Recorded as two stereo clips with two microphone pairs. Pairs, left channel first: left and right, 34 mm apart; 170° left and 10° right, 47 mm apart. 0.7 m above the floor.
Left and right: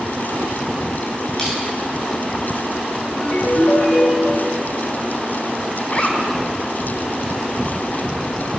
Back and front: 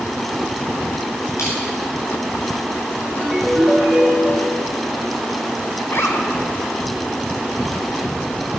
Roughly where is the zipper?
Behind left.